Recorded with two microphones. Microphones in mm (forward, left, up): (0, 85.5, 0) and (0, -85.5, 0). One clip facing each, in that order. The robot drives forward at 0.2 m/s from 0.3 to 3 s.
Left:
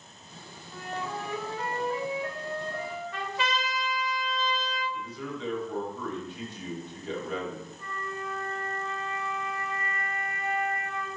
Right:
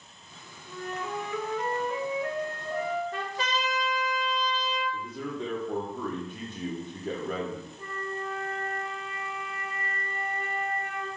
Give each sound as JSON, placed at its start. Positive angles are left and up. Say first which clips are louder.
{"t": 0.7, "sound": "a flute", "louder": "right 1 dB", "side_deg": -80, "distance_m": 1.9}
{"t": 3.1, "sound": "a trumpet", "louder": "even", "side_deg": -40, "distance_m": 1.0}
{"t": 4.9, "sound": "a man speaking", "louder": "right 2 dB", "side_deg": -50, "distance_m": 1.0}
{"t": 7.8, "sound": "a flute", "louder": "right 2 dB", "side_deg": -30, "distance_m": 0.9}